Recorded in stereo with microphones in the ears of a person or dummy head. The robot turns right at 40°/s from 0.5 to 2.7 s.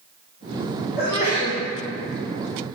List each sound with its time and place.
1.0 s a sneeze: 45° left (ahead or behind), 5 m; by 1.6 s 25° left (ahead or behind), 5 m